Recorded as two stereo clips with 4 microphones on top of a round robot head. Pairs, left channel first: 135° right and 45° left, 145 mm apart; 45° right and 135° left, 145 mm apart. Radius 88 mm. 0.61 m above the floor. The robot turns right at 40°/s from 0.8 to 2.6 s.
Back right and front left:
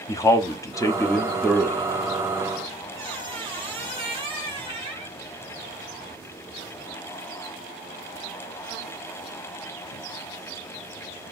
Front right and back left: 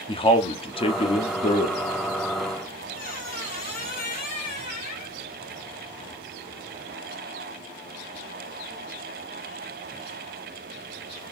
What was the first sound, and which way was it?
A man speaking, 75° right.